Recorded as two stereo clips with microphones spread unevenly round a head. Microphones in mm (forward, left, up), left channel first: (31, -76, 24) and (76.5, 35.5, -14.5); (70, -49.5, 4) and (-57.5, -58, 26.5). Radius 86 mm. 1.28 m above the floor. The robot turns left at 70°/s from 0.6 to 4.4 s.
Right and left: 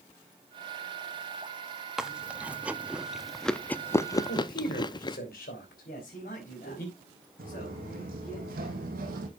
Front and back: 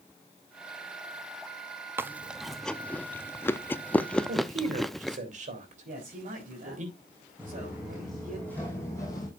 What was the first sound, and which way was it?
Chewing, 105° left.